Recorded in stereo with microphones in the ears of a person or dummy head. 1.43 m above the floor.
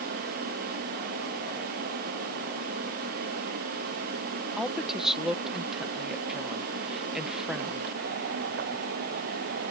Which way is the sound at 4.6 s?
5° right (ahead or behind).